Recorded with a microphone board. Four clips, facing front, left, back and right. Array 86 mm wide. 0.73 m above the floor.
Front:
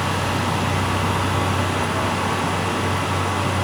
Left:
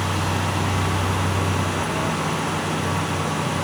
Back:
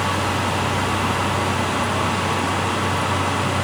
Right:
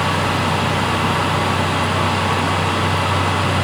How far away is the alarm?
I don't hear an alarm.